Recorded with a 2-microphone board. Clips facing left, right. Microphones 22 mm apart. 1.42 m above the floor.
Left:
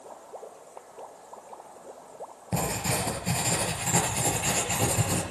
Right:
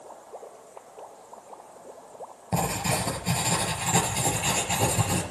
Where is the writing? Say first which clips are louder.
Right 2 dB; 10° right (ahead or behind), 4 m.